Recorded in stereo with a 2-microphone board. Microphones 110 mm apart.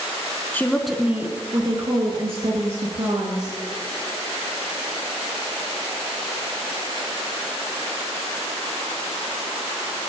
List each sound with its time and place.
0.5 s a woman speaking: 15° left (ahead or behind), 1.3 m; by 3.6 s 70° right (ahead or behind), 3 m